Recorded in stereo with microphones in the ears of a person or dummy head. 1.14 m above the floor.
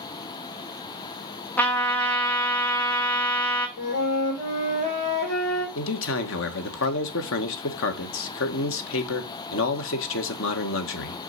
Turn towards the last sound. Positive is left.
turn(degrees=60)  # may be behind; listen again after turning